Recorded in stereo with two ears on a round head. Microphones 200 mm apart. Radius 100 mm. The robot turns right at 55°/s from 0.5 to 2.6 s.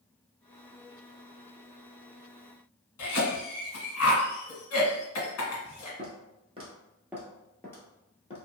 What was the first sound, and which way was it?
A cough, 70° left (ahead or behind).